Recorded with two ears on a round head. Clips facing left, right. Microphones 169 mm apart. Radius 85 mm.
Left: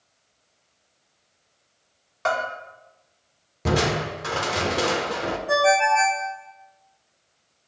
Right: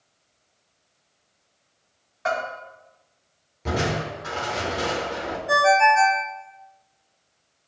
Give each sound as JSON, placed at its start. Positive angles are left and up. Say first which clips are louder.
{"t": 2.2, "sound": "a bell", "louder": "left 1 dB", "side_deg": 65, "distance_m": 3.0}
{"t": 3.6, "sound": "crushing", "louder": "left 3 dB", "side_deg": 65, "distance_m": 1.0}
{"t": 5.5, "sound": "a ringtone", "louder": "right 1 dB", "side_deg": -10, "distance_m": 1.0}